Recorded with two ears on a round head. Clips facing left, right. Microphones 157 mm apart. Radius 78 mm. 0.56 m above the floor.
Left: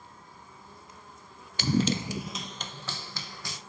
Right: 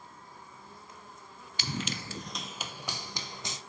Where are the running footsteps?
40° left (ahead or behind), 0.6 m; by 3.6 s 20° right (ahead or behind), 1.9 m.